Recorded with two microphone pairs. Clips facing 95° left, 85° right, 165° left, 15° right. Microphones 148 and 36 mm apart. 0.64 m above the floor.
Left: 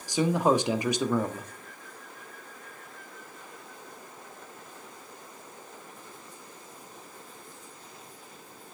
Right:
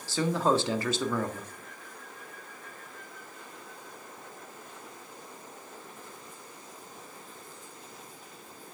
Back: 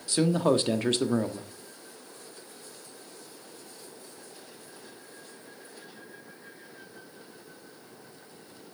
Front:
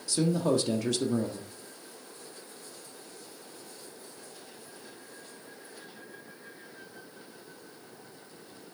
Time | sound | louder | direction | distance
0.1 | a man speaking | left 2 dB, back 3 dB | 160° left | 1.3 m